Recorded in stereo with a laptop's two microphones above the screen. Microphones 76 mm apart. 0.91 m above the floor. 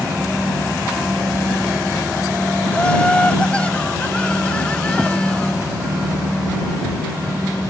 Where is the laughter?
15° left (ahead or behind).